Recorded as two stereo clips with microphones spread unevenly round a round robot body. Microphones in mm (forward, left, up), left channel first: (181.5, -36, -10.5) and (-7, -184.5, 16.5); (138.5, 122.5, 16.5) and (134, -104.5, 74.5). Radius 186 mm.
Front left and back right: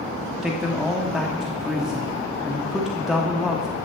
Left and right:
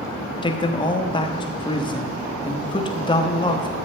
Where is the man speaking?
120° left, 0.9 m.